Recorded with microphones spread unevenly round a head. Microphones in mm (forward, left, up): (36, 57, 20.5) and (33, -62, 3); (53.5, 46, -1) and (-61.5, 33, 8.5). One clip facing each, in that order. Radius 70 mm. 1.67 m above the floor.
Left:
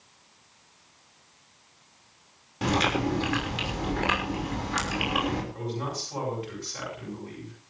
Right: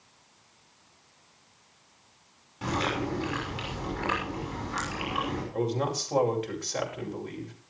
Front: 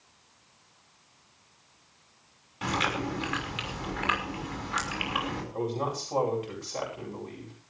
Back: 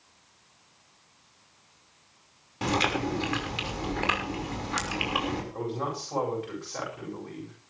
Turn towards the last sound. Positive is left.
turn(degrees=-70)